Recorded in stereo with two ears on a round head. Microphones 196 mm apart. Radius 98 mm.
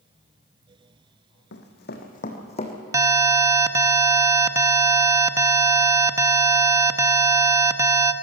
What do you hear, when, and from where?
1.5 s running footsteps: 55° left (ahead or behind), 2.5 m; by 2.8 s 25° left (ahead or behind), 3 m
2.9 s an alarm: 15° right (ahead or behind), 0.8 m